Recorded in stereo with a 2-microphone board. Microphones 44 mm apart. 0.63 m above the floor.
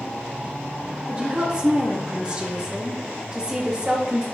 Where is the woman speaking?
20° right (ahead or behind), 0.6 m.